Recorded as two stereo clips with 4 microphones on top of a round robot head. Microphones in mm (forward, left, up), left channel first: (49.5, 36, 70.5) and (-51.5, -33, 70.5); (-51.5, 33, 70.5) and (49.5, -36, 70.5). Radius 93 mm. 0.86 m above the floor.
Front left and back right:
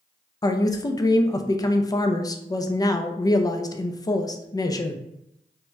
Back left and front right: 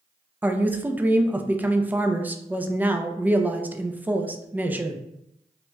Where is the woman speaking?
30° left, 0.5 m.